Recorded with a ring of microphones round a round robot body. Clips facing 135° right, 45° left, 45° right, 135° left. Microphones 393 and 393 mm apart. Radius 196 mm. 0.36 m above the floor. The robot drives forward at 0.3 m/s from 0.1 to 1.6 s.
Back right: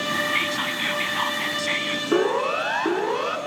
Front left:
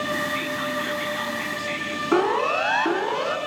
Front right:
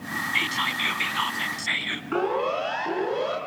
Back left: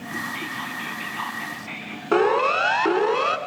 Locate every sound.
0.3 s whispering: 80° right, 3.5 m; by 2.0 s 85° right, 3.5 m
2.1 s a siren: 120° left, 4 m; by 3.4 s 140° left, 4 m